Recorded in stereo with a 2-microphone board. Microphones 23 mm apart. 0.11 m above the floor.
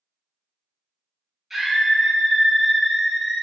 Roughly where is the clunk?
No clunk in this recording.